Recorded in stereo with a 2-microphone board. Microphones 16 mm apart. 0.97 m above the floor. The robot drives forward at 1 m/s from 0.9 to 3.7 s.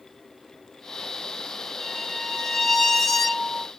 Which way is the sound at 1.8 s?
5° left (ahead or behind).